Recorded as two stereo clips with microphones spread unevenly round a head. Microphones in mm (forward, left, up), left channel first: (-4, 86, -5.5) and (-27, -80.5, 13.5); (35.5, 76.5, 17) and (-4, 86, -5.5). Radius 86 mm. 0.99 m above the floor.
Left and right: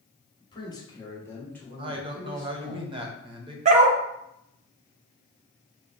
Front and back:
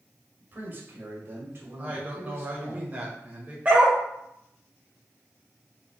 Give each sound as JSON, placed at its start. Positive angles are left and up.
{"t": 0.4, "sound": "a man speaking", "azimuth_deg": 140, "distance_m": 1.4}
{"t": 1.8, "sound": "a man speaking", "azimuth_deg": -160, "distance_m": 0.9}
{"t": 3.6, "sound": "a dog barking", "azimuth_deg": -100, "distance_m": 0.6}